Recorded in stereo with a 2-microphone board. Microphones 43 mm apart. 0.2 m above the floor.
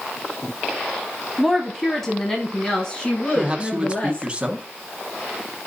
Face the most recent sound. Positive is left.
turn(degrees=-25)  # may be behind; listen again after turning